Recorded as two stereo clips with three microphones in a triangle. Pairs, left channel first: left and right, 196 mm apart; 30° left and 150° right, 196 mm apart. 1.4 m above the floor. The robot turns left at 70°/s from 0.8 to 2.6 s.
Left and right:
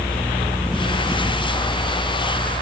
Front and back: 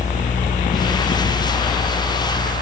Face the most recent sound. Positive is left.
No sound to turn to.